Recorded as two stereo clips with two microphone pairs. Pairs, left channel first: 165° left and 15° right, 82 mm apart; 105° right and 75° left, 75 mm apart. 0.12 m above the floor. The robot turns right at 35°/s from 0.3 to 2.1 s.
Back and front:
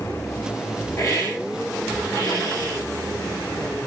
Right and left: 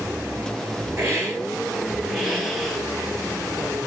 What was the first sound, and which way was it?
A hiss, 120° left.